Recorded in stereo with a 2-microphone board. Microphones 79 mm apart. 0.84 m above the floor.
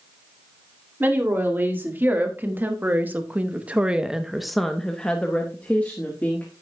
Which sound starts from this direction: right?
A woman speaking, at 1.0 s.